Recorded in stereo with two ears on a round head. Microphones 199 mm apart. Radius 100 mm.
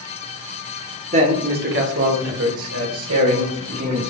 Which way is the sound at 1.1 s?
30° right (ahead or behind).